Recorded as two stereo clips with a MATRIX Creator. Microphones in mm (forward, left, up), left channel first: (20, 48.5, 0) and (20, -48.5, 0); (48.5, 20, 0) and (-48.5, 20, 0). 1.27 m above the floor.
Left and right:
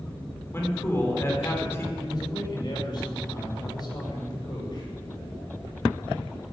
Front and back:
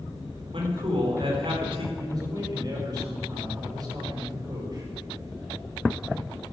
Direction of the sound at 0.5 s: 155° left.